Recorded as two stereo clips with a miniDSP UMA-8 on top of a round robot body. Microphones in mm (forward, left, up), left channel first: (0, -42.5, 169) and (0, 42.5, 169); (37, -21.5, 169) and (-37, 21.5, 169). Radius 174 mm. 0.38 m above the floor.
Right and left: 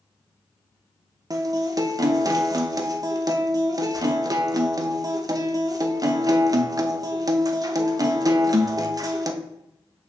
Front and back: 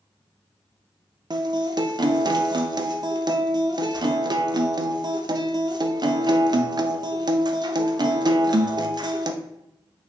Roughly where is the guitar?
Behind left.